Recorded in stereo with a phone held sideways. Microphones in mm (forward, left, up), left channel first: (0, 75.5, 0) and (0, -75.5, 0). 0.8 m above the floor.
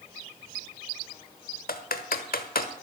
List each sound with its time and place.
1.7 s typing on a keyboard: 80° left, 1.2 m